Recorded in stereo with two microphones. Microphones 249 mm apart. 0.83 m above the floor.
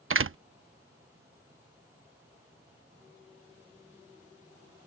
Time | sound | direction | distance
0.1 | a door slam | 55° right (ahead or behind) | ?